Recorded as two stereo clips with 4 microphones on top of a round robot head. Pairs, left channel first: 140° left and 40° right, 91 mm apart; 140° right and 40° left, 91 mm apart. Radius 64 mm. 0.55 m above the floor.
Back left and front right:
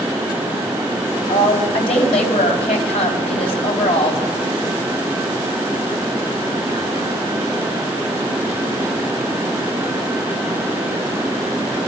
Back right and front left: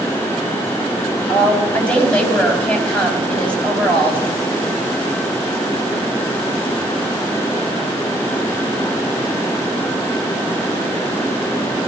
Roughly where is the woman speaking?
Behind left.